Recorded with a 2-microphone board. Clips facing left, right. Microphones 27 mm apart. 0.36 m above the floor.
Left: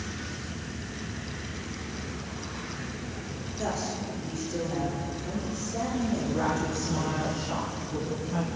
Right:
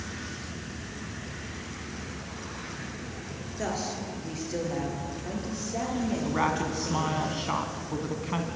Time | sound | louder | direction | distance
3.6 | a woman speaking | even | 25° right (ahead or behind) | 6.5 m
6.2 | a woman speaking | right 1 dB | 55° right (ahead or behind) | 2.5 m